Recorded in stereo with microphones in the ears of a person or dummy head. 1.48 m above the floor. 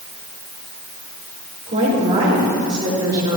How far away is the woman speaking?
About 4.5 m.